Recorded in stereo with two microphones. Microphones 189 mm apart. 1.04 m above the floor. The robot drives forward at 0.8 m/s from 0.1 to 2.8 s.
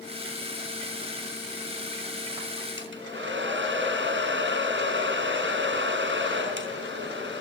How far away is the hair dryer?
About 4.5 m.